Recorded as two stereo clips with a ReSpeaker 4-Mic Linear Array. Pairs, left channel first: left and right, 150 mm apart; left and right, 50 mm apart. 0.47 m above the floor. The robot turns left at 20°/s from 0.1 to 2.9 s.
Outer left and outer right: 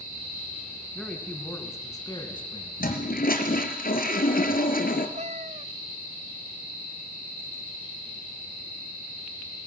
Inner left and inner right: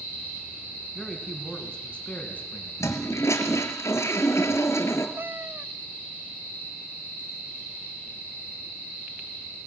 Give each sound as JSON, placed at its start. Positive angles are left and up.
{"t": 0.9, "sound": "a man speaking", "azimuth_deg": 175, "distance_m": 5.0}
{"t": 2.8, "sound": "a toilet flushing", "side_deg": 90, "distance_m": 3.0}
{"t": 5.2, "sound": "a cat meowing", "side_deg": -50, "distance_m": 0.8}